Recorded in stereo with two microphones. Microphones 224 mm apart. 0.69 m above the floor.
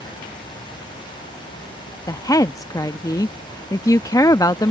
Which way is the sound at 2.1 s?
15° left (ahead or behind).